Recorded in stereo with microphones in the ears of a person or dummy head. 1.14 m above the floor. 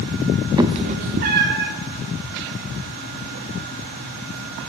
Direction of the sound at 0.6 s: 15° right (ahead or behind).